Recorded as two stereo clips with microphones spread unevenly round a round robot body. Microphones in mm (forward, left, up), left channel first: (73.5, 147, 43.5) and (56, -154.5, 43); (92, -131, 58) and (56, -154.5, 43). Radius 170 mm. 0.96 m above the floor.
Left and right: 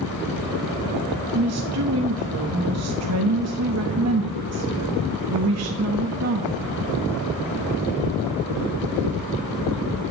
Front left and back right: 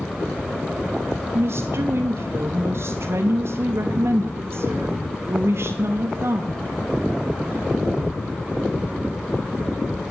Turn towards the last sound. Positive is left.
turn(degrees=-140)